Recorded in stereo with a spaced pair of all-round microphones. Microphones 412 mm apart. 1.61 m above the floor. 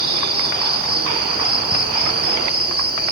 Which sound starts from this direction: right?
An insect, at 0.0 s.